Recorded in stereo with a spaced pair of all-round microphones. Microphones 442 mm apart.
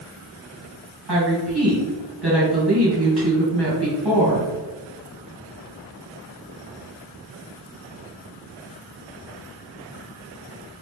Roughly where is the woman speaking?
Right.